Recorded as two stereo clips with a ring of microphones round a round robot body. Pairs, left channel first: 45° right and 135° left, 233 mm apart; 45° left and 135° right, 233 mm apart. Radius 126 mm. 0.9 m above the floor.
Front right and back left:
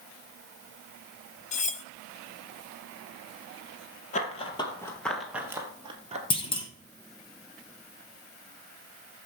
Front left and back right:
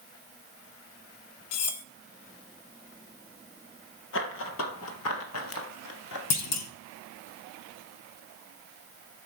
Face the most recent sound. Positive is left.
turn(degrees=25)